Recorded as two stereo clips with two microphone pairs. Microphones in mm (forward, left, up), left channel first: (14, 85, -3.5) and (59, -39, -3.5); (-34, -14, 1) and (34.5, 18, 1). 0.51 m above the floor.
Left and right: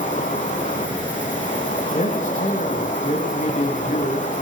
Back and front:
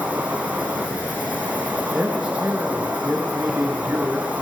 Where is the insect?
95° left, 4 m.